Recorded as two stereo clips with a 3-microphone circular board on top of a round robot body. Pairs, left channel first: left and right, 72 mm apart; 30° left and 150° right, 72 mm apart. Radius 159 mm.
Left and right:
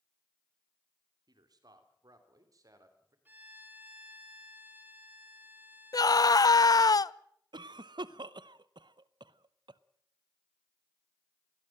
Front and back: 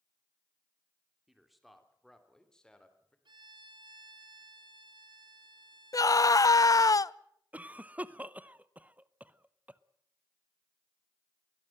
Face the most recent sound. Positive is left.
turn(degrees=-80)